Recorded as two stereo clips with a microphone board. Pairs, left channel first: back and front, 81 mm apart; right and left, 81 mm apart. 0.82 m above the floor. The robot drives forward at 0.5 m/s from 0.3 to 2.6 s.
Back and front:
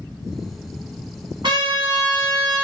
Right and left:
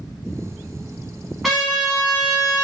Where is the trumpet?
Straight ahead, 1.9 m.